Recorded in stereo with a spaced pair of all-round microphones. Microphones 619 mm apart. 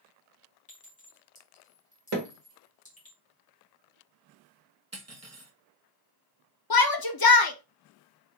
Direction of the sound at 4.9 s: 25° right (ahead or behind).